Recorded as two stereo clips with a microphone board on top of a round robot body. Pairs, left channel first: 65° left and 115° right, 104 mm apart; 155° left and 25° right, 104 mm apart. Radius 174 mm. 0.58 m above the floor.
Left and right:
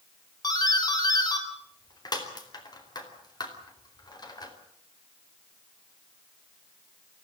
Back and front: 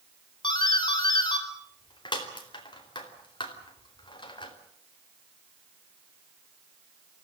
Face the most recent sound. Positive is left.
turn(degrees=115)